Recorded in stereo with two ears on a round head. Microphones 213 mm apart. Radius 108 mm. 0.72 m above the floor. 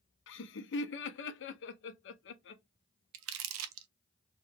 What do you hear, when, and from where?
0.3 s laughter: 50° left (ahead or behind), 0.7 m
3.1 s crumpling: 60° right (ahead or behind), 0.5 m